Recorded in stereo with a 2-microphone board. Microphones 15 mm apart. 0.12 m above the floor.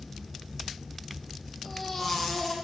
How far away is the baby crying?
About 3.5 m.